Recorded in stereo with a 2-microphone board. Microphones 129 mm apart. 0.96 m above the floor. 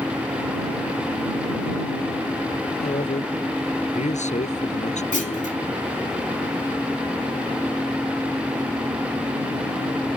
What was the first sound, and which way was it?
A man speaking, 70° left (ahead or behind).